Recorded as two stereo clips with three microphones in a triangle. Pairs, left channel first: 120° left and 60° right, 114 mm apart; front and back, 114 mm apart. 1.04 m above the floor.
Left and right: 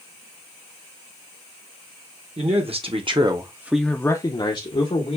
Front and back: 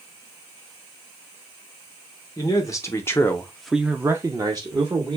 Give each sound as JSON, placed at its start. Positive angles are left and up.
{"t": 2.4, "sound": "a man speaking", "azimuth_deg": -55, "distance_m": 1.2}